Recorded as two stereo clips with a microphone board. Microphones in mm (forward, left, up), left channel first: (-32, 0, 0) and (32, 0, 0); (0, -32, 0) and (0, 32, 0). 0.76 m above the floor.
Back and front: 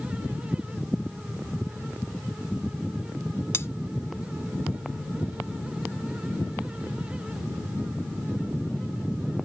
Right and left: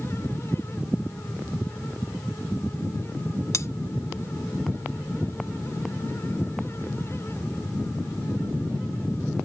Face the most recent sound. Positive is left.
turn(degrees=-130)